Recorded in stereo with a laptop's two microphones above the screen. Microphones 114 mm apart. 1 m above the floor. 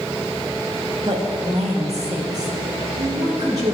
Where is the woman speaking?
55° right (ahead or behind), 1.4 m; by 3.8 s 75° right (ahead or behind), 2.5 m.